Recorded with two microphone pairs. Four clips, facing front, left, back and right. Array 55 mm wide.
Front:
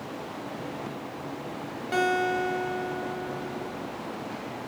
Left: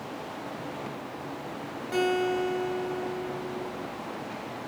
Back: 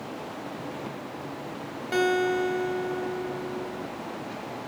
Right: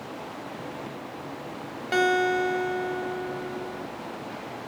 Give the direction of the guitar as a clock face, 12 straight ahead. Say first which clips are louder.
Right 4 dB, back 1 dB; 3 o'clock.